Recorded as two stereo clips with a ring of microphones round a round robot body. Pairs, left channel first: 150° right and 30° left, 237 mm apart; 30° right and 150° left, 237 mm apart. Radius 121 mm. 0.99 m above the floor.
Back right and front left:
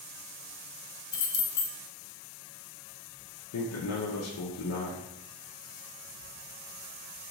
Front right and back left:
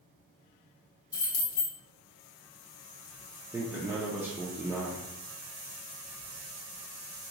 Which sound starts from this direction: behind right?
A man speaking, at 3.5 s.